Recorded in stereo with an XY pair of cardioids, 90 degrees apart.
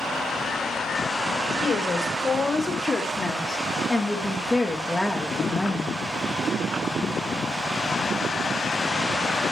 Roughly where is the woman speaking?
Ahead left.